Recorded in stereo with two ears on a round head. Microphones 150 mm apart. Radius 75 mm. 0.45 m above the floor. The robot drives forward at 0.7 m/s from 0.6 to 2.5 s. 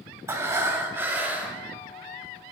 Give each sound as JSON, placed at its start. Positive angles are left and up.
{"t": 0.3, "sound": "breathing", "side_deg": -15, "distance_m": 0.9}